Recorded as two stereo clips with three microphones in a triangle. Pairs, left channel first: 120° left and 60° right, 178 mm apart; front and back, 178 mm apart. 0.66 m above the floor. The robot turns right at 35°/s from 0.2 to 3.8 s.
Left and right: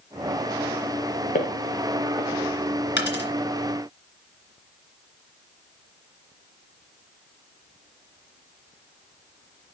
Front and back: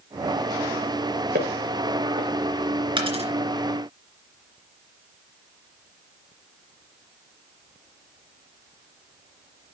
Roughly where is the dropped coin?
Behind left.